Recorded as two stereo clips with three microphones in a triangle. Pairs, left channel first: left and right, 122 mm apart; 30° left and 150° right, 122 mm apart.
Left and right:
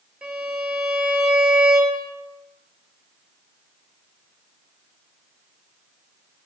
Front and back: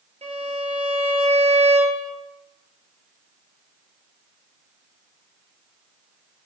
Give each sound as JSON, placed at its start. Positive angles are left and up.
{"t": 0.2, "sound": "a violin", "azimuth_deg": -170, "distance_m": 0.8}